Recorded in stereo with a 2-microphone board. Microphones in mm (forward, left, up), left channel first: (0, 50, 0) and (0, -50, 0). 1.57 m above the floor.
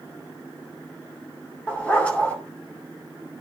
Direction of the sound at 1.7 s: 15° left (ahead or behind).